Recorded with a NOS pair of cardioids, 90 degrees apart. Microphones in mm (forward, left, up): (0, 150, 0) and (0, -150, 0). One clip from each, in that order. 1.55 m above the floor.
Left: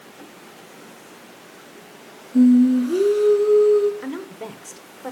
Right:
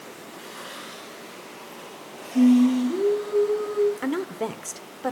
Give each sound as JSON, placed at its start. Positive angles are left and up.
{"t": 2.3, "sound": "singing", "azimuth_deg": 60, "distance_m": 3.0}
{"t": 4.0, "sound": "a woman speaking", "azimuth_deg": -25, "distance_m": 0.8}